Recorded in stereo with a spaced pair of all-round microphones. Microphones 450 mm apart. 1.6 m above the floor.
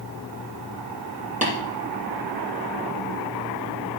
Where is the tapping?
15° right (ahead or behind), 7 m.